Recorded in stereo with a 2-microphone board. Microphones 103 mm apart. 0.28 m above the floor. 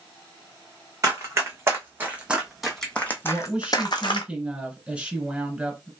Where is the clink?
I don't hear a clink.